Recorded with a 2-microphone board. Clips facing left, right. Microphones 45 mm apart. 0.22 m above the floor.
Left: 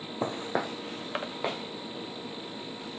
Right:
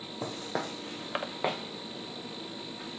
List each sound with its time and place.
0.2 s footsteps: 35° left (ahead or behind), 0.5 m; by 3.0 s 25° right (ahead or behind), 1.6 m